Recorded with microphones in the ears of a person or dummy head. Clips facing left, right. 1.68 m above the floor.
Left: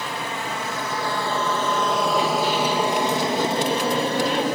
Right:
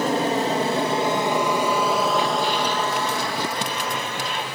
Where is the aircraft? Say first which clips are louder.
Right 9 dB; 40° right (ahead or behind); by 4.5 s 35° left (ahead or behind).